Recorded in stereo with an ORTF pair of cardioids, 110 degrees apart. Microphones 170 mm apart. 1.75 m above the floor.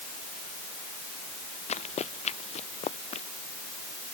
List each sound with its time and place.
1.7 s running footsteps: 40° left